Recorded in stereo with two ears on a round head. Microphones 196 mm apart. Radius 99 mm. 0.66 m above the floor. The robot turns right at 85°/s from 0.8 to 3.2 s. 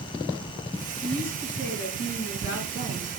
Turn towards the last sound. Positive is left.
turn(degrees=-175)